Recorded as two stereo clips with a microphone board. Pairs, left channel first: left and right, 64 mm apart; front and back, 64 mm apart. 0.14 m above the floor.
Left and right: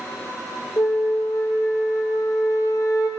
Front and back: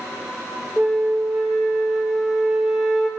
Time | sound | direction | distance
0.8 | a flute | 95° left | 0.7 m